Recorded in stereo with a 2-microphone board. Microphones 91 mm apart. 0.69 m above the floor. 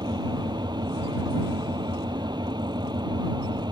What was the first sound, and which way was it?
An engine running, 50° right (ahead or behind).